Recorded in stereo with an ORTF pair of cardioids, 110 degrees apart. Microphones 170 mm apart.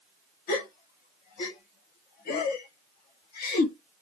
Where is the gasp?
65° left, 1.1 m.